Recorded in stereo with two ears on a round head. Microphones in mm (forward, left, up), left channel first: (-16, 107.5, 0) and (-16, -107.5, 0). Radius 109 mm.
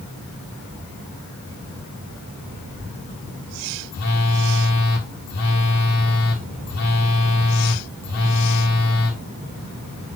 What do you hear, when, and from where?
3.9 s a phone buzzing: 80° left, 1.8 m